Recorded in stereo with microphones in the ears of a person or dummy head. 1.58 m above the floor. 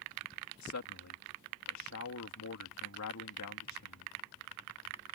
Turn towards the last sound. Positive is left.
turn(degrees=85)